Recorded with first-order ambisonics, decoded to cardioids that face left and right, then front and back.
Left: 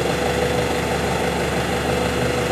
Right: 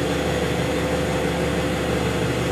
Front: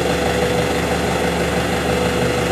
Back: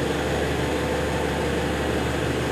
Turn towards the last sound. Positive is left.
turn(degrees=25)